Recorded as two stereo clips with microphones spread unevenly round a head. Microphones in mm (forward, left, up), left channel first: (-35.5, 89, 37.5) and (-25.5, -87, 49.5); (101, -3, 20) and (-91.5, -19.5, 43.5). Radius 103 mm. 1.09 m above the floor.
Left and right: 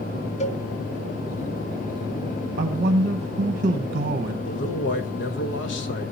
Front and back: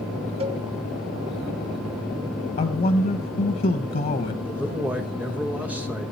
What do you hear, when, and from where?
0.4 s a cowbell: 125° left, 0.8 m
2.6 s a man speaking: 40° right, 0.8 m
4.5 s a man speaking: 100° left, 1.5 m